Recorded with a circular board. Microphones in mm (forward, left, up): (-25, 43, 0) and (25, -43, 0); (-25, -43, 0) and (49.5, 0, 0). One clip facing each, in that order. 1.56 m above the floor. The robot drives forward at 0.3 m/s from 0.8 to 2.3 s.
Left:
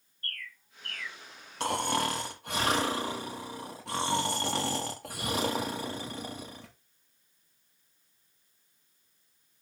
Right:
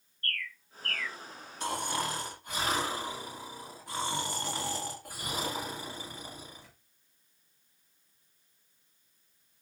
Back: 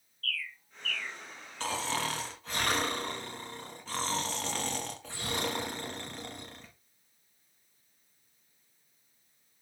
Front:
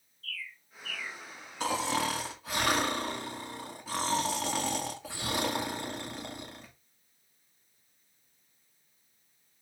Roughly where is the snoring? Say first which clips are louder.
Left 4 dB, front 3 dB; left.